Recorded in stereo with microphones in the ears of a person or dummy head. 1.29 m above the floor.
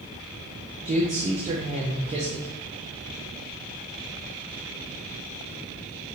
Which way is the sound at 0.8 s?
35° right (ahead or behind).